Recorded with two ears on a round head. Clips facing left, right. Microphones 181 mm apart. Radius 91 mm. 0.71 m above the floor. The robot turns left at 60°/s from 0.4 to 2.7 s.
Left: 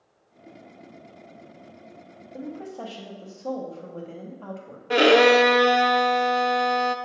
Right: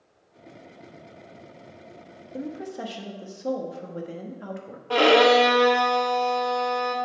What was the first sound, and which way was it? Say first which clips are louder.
A woman speaking: right 2 dB; 30° right (ahead or behind).